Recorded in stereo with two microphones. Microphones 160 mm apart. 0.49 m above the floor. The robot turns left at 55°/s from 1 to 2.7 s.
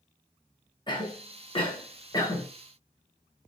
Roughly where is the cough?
Left.